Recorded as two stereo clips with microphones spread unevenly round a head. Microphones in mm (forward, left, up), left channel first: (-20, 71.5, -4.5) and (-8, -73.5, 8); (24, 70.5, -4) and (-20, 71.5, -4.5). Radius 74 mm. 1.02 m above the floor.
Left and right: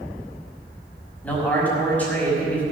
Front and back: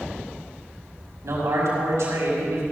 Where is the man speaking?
175° left, 5.5 m.